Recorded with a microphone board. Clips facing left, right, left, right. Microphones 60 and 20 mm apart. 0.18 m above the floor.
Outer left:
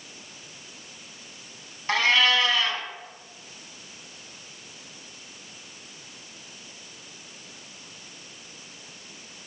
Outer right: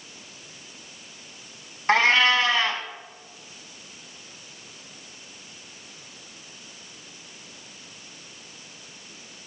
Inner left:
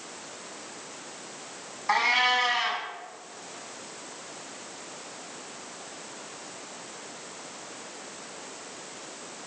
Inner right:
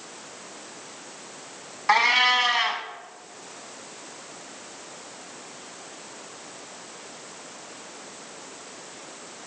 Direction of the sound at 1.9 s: 30° right (ahead or behind).